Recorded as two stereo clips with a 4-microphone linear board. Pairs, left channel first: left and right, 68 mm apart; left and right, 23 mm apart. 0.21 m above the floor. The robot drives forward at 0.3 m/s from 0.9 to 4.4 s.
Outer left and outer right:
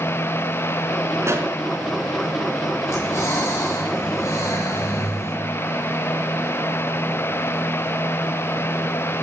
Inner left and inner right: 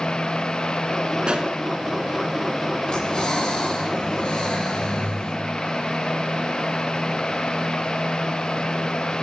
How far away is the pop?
About 2.5 m.